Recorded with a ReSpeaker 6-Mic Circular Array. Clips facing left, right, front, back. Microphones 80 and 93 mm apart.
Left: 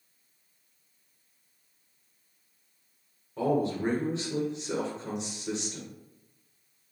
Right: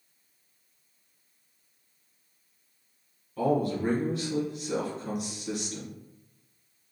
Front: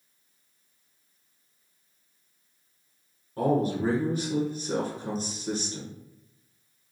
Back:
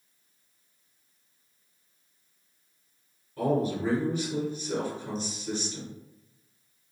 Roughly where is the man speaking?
Ahead left.